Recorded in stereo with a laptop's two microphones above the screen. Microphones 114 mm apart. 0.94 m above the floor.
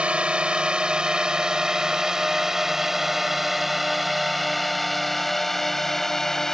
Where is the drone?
10° right (ahead or behind); by 6.5 s 5° left (ahead or behind).